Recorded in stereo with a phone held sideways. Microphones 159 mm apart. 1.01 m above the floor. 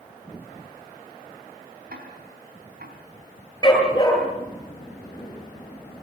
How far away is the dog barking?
About 8.5 m.